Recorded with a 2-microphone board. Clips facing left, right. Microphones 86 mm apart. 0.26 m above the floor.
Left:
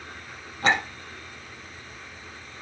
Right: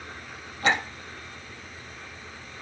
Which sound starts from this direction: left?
A clink, at 0.6 s.